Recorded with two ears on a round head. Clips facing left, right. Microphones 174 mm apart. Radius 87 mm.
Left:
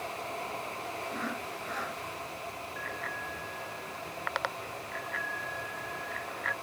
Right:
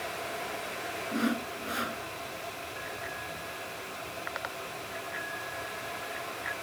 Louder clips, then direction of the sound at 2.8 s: Even; 65° left (ahead or behind).